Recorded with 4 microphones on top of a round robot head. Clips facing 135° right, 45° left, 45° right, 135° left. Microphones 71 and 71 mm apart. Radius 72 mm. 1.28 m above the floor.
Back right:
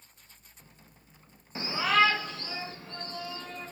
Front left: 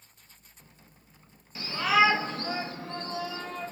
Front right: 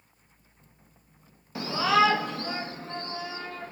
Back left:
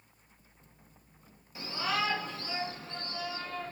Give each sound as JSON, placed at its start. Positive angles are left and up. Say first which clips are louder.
{"t": 1.6, "sound": "a shout", "louder": "front left 1 dB, front right 10 dB", "azimuth_deg": -75, "distance_m": 0.6}